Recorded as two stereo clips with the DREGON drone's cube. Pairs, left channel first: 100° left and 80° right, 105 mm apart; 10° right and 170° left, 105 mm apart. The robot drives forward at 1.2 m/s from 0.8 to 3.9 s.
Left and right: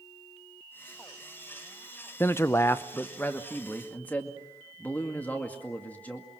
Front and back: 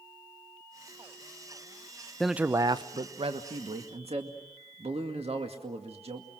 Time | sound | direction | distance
2.2 | a man speaking | 65° left | 0.6 m